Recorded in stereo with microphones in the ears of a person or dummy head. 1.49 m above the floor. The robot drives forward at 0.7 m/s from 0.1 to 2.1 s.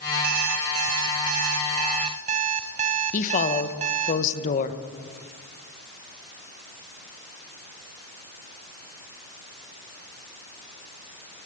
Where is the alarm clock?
55° right (ahead or behind), 2.5 m; by 4.1 s 40° right (ahead or behind), 3.5 m.